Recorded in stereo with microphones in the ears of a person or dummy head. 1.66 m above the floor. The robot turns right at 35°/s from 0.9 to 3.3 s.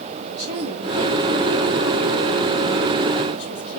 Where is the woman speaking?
50° right, 3.5 m; by 3.8 s 35° left, 3.5 m.